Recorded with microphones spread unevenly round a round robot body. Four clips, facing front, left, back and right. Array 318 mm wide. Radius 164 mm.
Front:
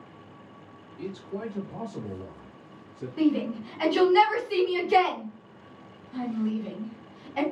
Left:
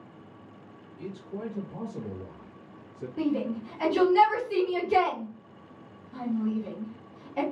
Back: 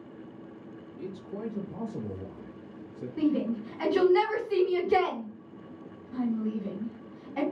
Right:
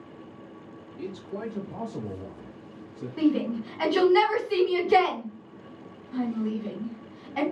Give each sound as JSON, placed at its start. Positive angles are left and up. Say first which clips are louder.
{"t": 1.0, "sound": "a man speaking", "louder": "right 2 dB, front 3 dB", "azimuth_deg": -65, "distance_m": 0.9}
{"t": 3.2, "sound": "a shout", "louder": "right 4 dB, front 2 dB", "azimuth_deg": -125, "distance_m": 2.0}